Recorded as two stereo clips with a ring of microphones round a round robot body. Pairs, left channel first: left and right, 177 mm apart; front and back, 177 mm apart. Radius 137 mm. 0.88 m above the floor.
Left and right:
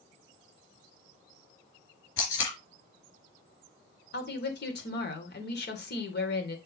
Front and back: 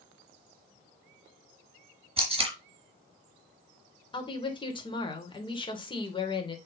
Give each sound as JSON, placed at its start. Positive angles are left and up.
{"t": 2.2, "sound": "tape being pulled", "azimuth_deg": 120, "distance_m": 4.5}
{"t": 4.1, "sound": "a woman speaking", "azimuth_deg": 65, "distance_m": 3.0}